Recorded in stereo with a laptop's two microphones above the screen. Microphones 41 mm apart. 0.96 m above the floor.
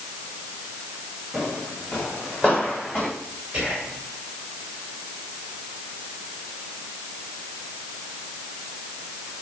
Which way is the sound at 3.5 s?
15° right (ahead or behind).